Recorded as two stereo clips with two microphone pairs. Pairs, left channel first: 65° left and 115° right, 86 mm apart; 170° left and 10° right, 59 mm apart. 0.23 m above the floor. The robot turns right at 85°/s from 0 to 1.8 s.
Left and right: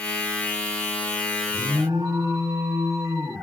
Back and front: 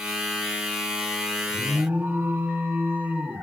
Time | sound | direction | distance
1.5 | an alarm | 90° right | 2 m